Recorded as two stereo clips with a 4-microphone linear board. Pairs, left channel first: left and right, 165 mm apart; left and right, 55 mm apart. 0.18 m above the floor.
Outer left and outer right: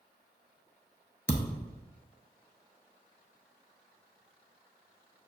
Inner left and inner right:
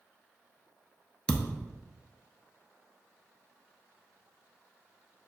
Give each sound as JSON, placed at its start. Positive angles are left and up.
{"t": 1.3, "sound": "a thud", "side_deg": 15, "distance_m": 0.7}